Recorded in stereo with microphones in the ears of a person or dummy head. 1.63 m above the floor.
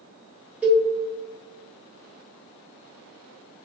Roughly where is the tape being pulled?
No tape being pulled in this recording.